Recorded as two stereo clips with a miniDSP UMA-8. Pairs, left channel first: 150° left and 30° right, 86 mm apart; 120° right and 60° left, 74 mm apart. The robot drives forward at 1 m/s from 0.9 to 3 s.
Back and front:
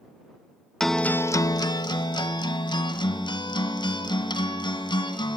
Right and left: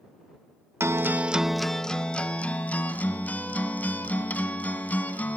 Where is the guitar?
65° left, 0.6 m; by 5.4 s 170° left, 2 m.